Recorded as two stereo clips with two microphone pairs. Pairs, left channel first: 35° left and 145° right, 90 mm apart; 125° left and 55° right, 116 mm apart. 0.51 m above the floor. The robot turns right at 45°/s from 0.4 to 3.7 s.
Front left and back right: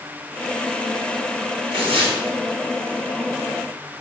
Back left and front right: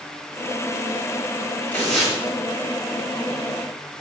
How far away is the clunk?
I don't hear a clunk.